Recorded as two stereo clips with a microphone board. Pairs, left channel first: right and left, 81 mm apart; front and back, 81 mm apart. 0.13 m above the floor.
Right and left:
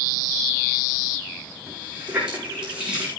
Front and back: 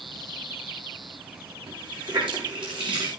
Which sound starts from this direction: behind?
A running tap, at 1.7 s.